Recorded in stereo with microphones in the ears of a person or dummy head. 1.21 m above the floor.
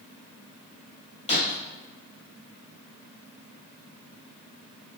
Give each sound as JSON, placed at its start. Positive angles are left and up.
{"t": 1.3, "sound": "breaking glass", "side_deg": 30, "distance_m": 2.5}